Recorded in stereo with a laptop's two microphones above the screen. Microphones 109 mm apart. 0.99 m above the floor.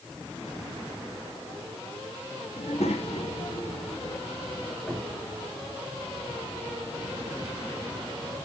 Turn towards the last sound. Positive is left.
turn(degrees=0)  # may be behind; listen again after turning